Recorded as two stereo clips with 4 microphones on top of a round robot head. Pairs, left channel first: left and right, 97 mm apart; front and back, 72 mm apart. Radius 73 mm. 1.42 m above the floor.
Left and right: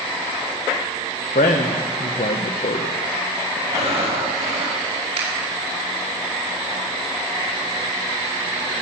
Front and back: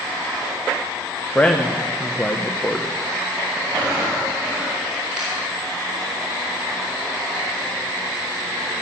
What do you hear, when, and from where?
1.4 s a man speaking: 75° left, 1.0 m
3.7 s breathing: 110° right, 7.5 m
5.2 s a finger snap: 100° right, 5 m